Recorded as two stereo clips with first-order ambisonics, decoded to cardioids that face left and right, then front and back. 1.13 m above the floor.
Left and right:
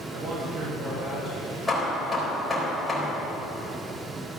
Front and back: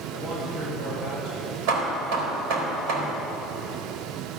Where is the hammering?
175° left, 3.5 m.